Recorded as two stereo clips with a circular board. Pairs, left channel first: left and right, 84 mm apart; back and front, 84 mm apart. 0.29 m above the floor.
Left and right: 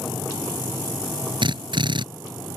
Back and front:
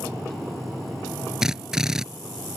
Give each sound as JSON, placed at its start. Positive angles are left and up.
{"t": 1.4, "sound": "a drill", "azimuth_deg": -85}